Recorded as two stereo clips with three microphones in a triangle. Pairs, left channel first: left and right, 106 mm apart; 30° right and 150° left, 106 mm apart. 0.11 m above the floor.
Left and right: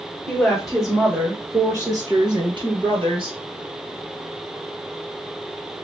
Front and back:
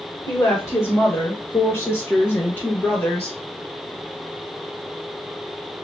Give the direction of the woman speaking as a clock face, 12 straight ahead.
12 o'clock.